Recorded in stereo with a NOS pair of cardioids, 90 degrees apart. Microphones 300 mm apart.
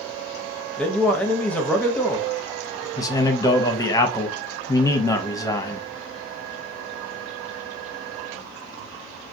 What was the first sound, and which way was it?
A man speaking, 5° left.